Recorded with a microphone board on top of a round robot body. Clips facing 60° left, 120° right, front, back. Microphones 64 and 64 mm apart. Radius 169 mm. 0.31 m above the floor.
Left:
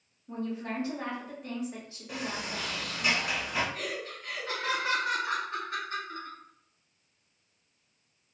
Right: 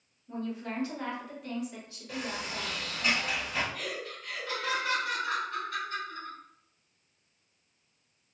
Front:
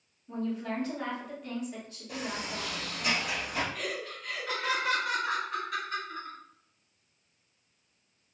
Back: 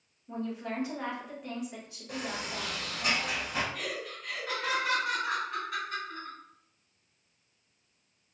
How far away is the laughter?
About 1.3 m.